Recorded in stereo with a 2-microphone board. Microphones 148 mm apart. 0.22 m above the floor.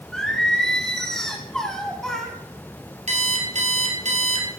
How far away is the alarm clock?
About 2.5 m.